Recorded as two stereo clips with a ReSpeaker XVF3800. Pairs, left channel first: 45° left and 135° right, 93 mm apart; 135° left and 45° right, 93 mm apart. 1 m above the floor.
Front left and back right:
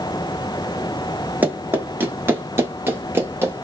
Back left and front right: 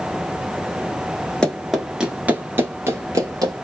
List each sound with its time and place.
1.4 s running footsteps: 160° right, 1.0 m; by 3.6 s 80° right, 1.5 m